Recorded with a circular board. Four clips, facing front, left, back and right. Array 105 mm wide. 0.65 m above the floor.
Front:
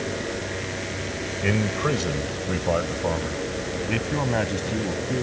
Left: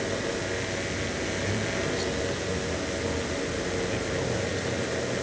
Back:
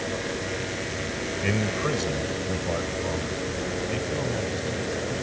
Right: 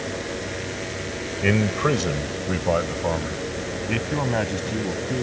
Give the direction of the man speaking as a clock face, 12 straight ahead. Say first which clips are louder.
Right 12 dB, front 3 dB; 3 o'clock.